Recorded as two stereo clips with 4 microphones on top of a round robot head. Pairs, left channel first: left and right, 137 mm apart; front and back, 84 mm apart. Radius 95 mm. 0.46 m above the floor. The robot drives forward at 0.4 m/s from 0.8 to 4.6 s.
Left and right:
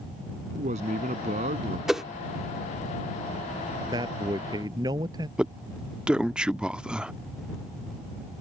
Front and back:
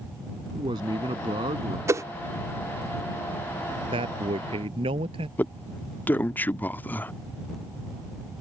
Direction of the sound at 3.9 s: 155° right.